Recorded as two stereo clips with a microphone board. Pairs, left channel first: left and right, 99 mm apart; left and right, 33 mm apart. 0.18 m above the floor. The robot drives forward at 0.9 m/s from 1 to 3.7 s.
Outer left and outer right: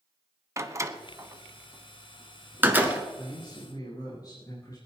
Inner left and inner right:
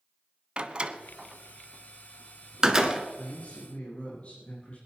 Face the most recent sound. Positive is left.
turn(degrees=35)  # may be behind; listen again after turning